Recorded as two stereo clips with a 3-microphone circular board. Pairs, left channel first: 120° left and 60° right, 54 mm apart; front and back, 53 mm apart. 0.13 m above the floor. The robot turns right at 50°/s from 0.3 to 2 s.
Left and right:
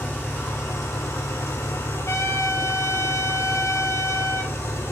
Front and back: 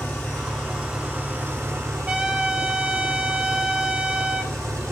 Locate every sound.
0.0 s an engine running: 60° left, 4 m; by 4.9 s 145° left, 4 m
2.1 s a trumpet: 120° left, 2.5 m